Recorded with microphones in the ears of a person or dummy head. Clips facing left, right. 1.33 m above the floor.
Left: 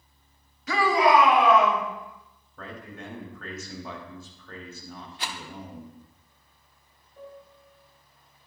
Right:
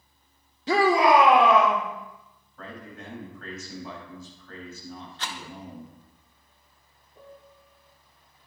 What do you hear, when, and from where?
0.7 s a shout: 25° right (ahead or behind), 0.8 m; by 1.8 s 45° right (ahead or behind), 2.5 m
2.6 s a man speaking: 60° left (ahead or behind), 2.5 m
5.2 s a rattle: 10° left (ahead or behind), 0.7 m
7.2 s a piano: 35° right (ahead or behind), 1.5 m